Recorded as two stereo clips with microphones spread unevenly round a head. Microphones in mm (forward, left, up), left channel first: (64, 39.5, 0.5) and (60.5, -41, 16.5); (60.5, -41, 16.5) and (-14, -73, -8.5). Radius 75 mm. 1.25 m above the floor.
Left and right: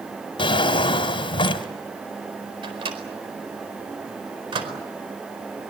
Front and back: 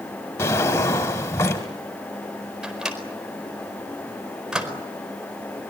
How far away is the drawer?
About 1.7 m.